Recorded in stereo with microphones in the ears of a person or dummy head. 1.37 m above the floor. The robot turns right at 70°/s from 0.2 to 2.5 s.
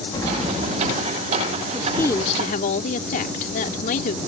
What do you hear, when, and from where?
0.1 s an explosion: 160° left; by 1.5 s 110° right
1.7 s a woman speaking: 10° right; by 4.2 s 45° left